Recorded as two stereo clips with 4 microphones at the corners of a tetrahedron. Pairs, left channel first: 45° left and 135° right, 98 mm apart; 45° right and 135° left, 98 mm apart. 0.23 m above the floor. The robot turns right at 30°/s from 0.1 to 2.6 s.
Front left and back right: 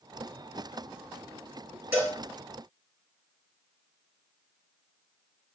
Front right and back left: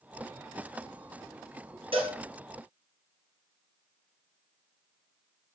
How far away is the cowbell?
About 5 m.